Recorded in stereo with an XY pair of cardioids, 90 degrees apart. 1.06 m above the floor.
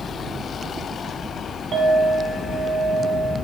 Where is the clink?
60° right, 3 m.